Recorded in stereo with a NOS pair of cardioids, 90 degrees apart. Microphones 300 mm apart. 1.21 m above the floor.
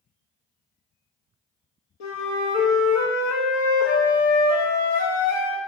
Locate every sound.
2.0 s a flute: 70° left, 1.1 m